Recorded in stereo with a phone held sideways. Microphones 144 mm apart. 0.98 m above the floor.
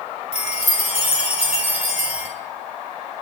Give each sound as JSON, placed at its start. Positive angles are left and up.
{"t": 0.3, "sound": "a chime", "side_deg": 50, "distance_m": 2.0}